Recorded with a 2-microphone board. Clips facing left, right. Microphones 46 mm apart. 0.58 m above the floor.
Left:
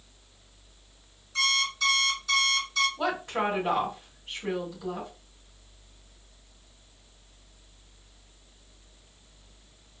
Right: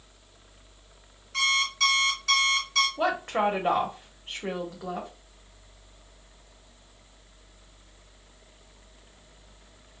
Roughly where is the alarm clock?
Right.